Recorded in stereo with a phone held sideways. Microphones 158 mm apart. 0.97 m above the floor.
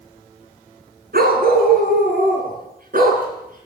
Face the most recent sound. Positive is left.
turn(degrees=-60)  # may be behind; listen again after turning